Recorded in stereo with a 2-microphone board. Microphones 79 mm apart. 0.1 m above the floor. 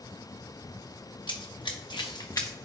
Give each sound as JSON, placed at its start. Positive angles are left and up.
{"t": 1.3, "sound": "running footsteps", "side_deg": 80, "distance_m": 0.9}